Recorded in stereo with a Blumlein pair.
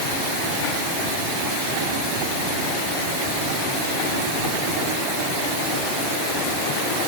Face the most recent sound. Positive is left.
No sound to turn to.